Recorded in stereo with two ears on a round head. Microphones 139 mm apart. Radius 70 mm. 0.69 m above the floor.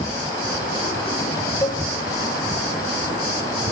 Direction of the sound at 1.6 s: 20° left (ahead or behind).